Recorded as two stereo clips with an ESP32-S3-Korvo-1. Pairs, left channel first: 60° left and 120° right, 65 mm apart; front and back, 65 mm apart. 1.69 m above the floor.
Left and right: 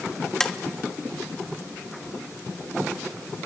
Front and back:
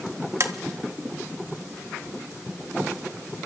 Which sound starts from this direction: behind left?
Tapping, at 0.4 s.